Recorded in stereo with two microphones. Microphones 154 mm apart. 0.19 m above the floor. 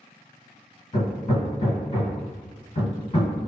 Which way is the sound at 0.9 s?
40° left (ahead or behind).